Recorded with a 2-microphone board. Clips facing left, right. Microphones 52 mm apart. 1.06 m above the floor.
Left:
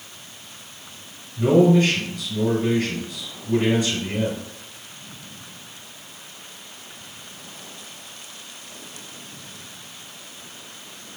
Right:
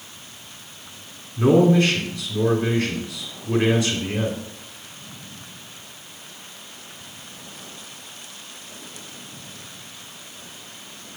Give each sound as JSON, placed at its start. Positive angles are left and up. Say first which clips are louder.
{"t": 1.4, "sound": "a man speaking", "louder": "even", "side_deg": -80, "distance_m": 3.0}